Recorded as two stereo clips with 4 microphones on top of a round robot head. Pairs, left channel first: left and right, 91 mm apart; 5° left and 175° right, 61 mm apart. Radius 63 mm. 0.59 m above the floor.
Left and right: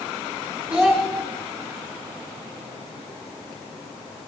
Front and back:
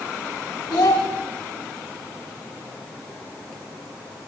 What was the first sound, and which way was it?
A child speaking, 10° right.